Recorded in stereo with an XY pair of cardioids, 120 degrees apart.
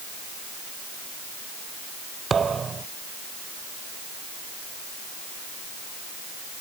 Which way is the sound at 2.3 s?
30° right.